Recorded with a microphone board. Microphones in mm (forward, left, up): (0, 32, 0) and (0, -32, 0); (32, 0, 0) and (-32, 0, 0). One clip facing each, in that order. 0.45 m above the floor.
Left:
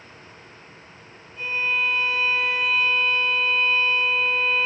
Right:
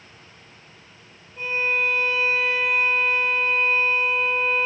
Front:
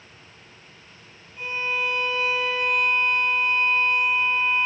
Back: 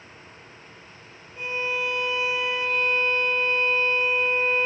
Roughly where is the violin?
Behind right.